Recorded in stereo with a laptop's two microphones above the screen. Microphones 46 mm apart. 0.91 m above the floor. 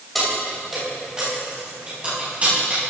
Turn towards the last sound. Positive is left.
turn(degrees=-35)  # may be behind; listen again after turning